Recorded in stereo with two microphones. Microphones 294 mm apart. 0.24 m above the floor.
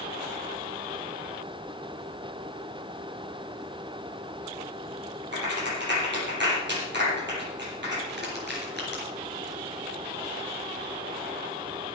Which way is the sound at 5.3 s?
40° right (ahead or behind).